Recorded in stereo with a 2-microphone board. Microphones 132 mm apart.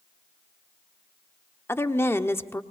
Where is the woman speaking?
20° left (ahead or behind), 1.2 m.